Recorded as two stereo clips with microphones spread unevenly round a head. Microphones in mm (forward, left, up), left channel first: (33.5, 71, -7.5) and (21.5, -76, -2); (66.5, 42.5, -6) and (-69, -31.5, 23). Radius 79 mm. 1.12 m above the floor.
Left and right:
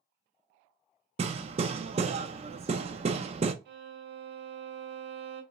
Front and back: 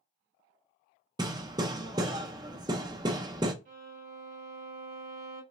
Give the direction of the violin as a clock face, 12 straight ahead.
4 o'clock.